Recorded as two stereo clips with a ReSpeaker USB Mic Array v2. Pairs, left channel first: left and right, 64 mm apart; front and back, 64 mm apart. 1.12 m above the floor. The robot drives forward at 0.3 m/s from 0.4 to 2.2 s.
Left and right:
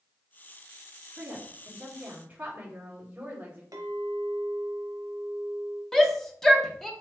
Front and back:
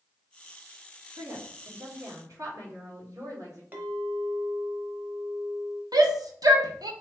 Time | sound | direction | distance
1.2 | a woman speaking | 150° right | 1.6 m
3.7 | a clink | 115° right | 1.0 m
5.9 | a shout | 175° left | 0.9 m